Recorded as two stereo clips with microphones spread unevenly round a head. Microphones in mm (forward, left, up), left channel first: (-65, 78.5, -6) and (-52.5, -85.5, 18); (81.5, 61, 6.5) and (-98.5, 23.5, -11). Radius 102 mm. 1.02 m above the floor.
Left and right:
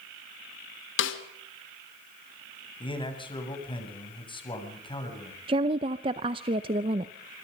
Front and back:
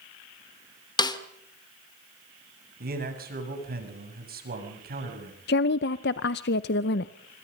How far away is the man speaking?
About 7 m.